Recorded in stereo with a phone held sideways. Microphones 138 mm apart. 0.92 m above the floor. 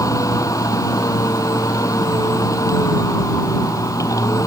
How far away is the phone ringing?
No phone ringing in this recording.